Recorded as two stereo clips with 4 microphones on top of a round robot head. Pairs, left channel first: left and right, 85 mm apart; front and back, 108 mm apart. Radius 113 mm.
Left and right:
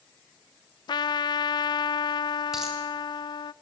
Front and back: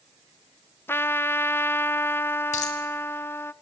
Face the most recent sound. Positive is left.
turn(degrees=-5)